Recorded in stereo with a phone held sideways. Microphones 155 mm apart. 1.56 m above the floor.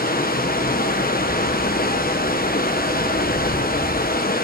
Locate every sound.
0.0 s running water: 70° left (ahead or behind), 1.0 m